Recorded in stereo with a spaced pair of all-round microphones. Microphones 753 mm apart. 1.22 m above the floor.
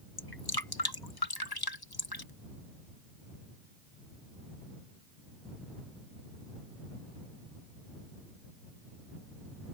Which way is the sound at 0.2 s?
30° left (ahead or behind).